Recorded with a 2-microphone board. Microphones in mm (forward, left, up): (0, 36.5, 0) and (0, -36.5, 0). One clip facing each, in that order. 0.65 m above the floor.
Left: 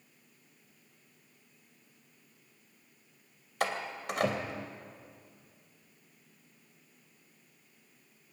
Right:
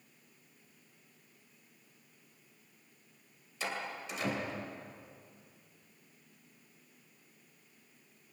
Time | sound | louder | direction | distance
3.6 | a door slam | left 5 dB | 70° left (ahead or behind) | 2.5 m